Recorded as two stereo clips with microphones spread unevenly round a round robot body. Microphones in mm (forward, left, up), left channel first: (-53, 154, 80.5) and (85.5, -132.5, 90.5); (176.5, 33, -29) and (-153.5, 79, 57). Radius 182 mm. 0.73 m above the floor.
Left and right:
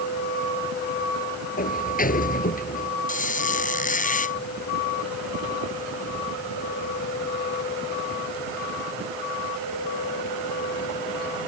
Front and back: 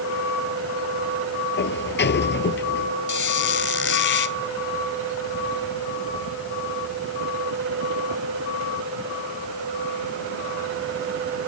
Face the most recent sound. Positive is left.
turn(degrees=50)